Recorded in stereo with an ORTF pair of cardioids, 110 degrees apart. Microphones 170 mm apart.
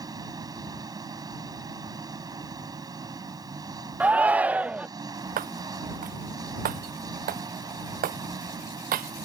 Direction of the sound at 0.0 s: 20° right.